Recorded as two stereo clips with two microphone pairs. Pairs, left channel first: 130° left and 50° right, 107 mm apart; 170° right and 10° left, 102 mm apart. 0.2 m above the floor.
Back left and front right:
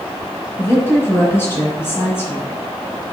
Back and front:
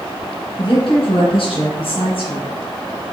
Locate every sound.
0.6 s a woman speaking: 165° right, 1.7 m